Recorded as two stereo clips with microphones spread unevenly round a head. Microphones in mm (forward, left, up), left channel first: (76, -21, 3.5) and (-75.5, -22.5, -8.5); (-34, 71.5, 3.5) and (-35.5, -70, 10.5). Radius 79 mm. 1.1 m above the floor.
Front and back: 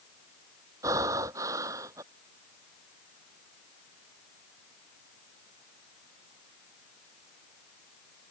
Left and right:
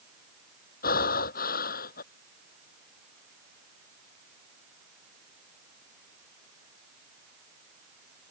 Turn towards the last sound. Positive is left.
turn(degrees=110)